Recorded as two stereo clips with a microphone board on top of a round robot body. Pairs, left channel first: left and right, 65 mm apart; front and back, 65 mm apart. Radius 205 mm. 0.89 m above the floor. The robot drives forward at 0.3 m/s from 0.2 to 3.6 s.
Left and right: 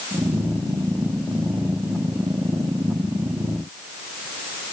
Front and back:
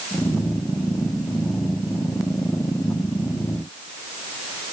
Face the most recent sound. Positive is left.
No sound to turn to.